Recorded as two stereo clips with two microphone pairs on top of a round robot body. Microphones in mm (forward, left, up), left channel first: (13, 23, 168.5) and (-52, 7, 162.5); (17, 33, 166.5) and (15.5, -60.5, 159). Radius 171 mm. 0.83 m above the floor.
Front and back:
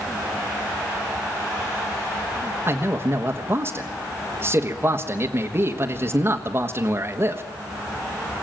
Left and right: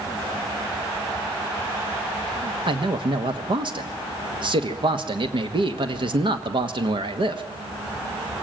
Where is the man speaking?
115° right, 1.4 m.